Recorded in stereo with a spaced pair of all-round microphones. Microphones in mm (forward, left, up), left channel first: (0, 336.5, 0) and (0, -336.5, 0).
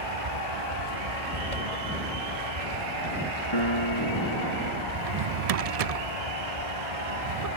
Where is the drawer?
60° right (ahead or behind).